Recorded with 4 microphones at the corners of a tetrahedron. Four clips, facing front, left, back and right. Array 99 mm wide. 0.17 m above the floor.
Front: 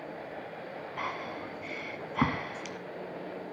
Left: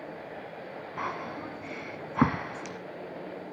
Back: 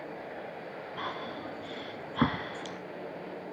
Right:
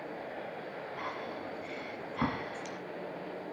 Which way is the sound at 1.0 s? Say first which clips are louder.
Left 6 dB, front 1 dB; 100° left.